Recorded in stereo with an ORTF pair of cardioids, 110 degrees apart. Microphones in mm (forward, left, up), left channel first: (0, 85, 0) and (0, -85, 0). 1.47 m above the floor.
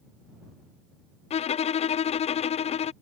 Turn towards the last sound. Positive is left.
turn(degrees=40)